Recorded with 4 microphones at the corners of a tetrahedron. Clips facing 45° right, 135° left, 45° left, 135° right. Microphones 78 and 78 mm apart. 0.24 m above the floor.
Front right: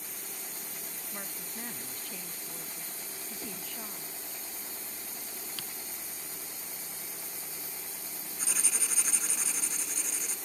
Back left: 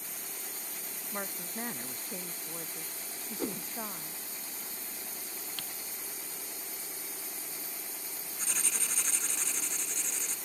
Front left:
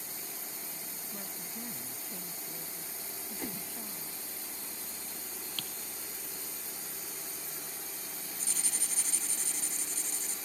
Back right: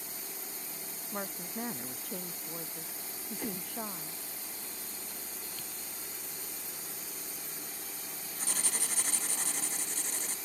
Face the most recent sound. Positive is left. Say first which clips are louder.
# front right 1 dB, back right 8 dB
turn(degrees=-130)